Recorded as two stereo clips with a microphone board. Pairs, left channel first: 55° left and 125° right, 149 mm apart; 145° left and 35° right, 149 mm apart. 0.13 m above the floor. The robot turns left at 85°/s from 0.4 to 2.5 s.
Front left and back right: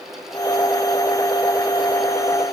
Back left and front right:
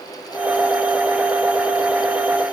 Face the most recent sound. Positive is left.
No sound to turn to.